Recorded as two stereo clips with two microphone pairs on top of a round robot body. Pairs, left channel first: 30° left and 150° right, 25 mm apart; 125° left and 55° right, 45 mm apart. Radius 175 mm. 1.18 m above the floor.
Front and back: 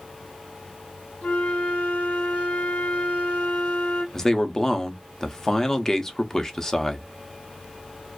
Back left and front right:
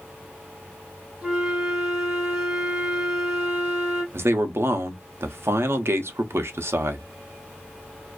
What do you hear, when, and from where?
1.2 s a flute: 25° left, 1.7 m
4.1 s a man speaking: 45° right, 0.7 m